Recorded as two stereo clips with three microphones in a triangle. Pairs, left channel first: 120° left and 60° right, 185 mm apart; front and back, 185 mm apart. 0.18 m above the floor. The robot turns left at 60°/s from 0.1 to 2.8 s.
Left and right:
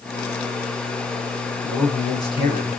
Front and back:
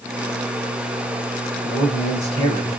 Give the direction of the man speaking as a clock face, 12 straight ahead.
5 o'clock.